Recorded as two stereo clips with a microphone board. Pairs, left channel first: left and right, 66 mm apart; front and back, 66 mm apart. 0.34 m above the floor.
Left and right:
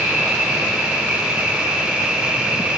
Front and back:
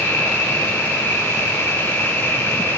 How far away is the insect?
About 1.0 m.